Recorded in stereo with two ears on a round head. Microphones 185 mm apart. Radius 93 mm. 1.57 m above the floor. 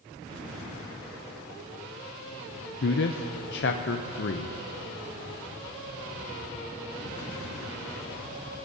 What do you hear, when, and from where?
2.8 s a man speaking: 55° left (ahead or behind), 0.6 m